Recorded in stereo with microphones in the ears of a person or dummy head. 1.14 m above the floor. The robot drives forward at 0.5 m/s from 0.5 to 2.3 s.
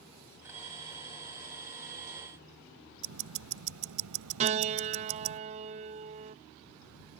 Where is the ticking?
75° right (ahead or behind).